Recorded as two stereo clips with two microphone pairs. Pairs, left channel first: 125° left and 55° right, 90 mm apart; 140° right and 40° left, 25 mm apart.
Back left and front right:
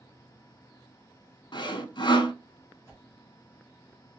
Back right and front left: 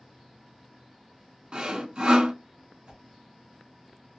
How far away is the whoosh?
About 2 m.